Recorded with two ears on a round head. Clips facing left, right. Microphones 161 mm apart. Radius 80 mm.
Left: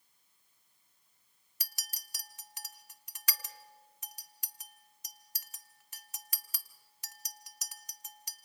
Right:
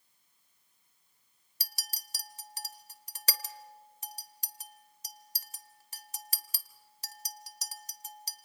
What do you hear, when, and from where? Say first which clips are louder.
1.6 s a clink: right 5 dB; 30° right (ahead or behind), 0.9 m